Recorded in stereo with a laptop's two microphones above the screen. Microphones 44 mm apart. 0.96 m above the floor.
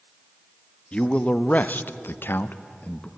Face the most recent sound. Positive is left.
turn(degrees=30)  # may be behind; listen again after turning